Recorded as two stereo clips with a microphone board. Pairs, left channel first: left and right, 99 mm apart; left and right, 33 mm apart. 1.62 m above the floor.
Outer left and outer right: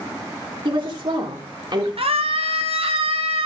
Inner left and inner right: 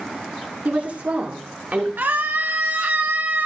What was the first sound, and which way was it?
A woman speaking, 55° right (ahead or behind).